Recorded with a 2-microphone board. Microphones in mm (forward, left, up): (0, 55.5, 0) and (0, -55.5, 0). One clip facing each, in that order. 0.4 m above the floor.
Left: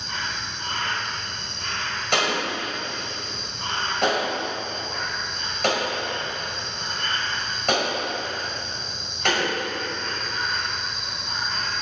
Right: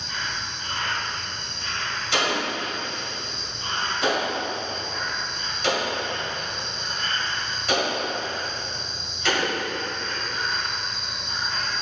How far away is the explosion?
About 1.9 m.